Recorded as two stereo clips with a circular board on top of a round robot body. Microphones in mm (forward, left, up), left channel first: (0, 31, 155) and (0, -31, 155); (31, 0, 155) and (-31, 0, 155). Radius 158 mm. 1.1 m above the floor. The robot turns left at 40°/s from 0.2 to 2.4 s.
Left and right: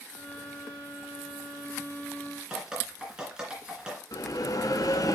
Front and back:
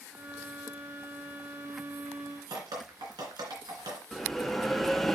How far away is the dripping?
About 3 m.